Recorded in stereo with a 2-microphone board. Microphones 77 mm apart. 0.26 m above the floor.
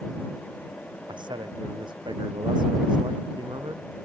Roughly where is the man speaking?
Right.